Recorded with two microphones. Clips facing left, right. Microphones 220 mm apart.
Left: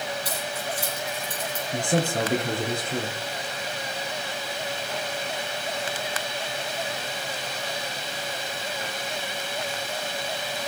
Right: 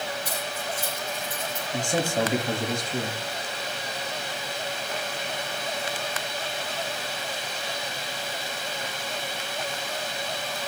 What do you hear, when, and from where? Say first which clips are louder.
0.2 s keys jangling: left 1 dB; 80° left, 7 m
1.7 s a man speaking: left 1 dB; 55° left (ahead or behind), 3.5 m